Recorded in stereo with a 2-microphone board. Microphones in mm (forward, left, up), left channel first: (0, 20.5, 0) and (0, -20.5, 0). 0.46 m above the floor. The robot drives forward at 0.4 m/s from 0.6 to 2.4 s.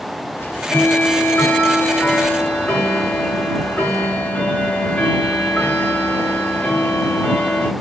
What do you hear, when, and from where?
0.4 s ticking: 55° left (ahead or behind), 0.8 m; by 7.7 s 35° left (ahead or behind), 1.1 m